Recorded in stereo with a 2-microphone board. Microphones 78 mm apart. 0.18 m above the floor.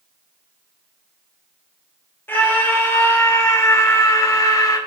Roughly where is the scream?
Left.